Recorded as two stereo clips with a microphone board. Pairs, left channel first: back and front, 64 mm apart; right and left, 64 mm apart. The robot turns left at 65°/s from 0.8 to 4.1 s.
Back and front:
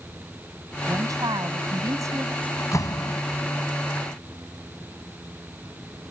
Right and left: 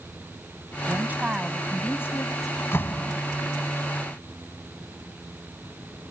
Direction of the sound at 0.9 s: 40° left.